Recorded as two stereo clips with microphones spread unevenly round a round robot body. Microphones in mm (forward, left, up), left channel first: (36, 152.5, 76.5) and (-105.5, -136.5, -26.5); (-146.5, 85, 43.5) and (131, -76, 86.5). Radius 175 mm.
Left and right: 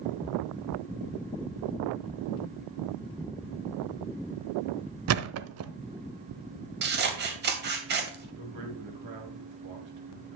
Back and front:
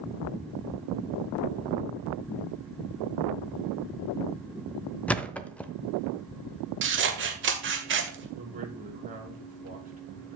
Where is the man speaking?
95° right, 6 m.